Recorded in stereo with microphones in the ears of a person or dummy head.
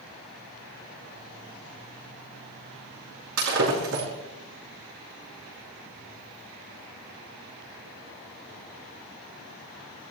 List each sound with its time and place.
3.4 s breaking glass: 65° right (ahead or behind), 5.5 m